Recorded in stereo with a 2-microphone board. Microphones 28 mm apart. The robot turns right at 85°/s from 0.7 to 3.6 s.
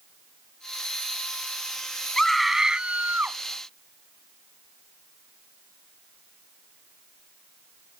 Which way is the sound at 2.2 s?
160° left.